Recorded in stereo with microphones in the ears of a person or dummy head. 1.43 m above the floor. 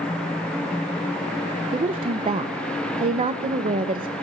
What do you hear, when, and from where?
1.7 s a woman speaking: 30° right (ahead or behind), 0.8 m